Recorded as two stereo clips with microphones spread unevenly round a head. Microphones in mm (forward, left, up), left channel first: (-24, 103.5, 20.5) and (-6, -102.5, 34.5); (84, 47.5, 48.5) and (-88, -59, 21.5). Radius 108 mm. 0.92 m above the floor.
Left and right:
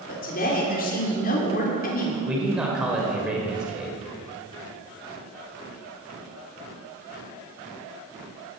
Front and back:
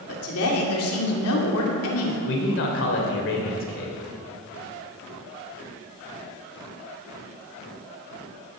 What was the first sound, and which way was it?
A woman speaking, 45° left.